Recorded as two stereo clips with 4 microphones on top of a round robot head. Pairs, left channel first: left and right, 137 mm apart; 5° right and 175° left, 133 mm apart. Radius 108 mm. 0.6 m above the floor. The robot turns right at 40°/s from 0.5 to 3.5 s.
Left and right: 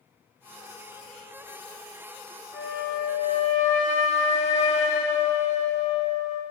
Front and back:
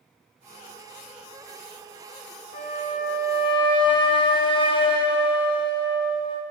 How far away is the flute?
About 1.1 m.